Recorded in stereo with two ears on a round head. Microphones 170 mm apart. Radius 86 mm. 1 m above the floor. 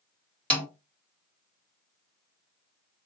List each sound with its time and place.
0.5 s a snare drum: 5° left (ahead or behind), 1.7 m